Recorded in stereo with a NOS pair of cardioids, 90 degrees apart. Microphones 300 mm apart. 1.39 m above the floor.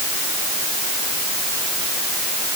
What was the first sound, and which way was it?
Only background noise.